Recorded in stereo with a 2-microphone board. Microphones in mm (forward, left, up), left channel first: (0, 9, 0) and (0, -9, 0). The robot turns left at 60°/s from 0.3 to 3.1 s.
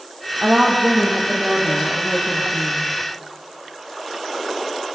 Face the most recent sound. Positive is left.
turn(degrees=70)